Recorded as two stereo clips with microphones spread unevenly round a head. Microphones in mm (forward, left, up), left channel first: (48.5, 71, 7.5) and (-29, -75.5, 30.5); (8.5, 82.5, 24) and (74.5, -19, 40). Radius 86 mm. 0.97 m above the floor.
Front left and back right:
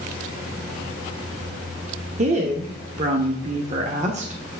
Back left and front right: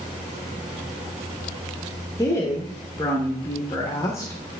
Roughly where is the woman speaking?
Behind.